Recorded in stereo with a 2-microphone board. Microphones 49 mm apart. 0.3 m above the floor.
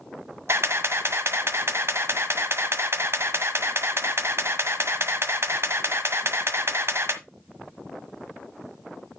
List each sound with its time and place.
0.5 s a camera shutter: 60° right (ahead or behind), 1.3 m